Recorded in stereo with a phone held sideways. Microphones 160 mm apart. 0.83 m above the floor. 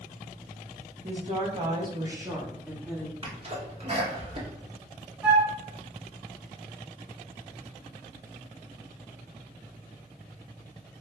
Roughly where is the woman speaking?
Right.